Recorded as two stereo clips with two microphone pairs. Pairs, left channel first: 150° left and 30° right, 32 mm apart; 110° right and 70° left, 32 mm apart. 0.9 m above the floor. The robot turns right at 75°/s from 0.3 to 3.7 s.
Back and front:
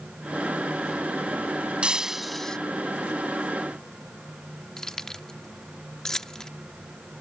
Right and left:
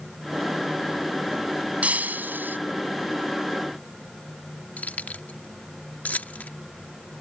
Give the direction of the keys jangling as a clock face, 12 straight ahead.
5 o'clock.